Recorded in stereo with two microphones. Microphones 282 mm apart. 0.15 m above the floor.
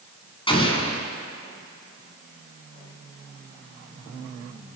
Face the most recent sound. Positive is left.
turn(degrees=20)  # may be behind; listen again after turning